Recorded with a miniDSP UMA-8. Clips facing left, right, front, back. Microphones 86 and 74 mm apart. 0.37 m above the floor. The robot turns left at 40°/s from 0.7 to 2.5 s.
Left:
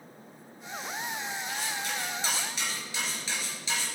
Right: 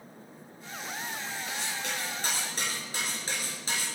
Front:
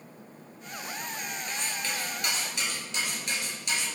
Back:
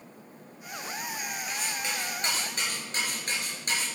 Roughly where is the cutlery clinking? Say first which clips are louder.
Even, even; right.